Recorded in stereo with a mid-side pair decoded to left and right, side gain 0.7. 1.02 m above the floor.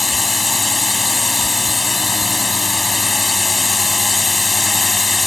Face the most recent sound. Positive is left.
turn(degrees=15)